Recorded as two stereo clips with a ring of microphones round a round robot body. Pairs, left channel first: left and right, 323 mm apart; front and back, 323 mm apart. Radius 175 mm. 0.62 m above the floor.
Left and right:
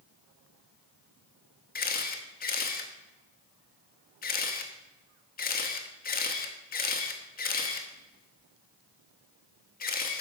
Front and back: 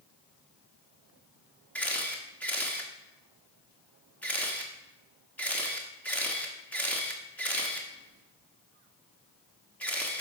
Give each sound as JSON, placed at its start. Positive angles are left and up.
{"t": 1.8, "sound": "a camera shutter", "azimuth_deg": 80, "distance_m": 1.1}